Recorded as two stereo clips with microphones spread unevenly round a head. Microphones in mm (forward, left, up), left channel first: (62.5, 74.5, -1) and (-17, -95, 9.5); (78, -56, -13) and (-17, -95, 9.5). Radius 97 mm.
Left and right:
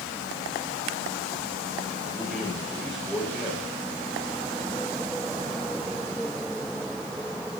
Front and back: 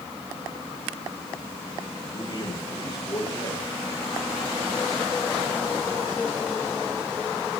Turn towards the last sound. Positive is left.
turn(degrees=-25)